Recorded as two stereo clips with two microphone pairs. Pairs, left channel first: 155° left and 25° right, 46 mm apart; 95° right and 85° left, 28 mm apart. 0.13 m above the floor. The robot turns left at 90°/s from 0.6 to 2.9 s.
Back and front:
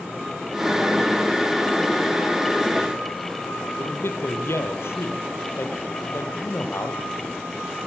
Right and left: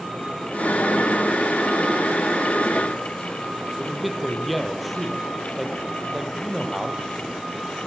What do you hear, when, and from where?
3.8 s a man speaking: 175° left, 4 m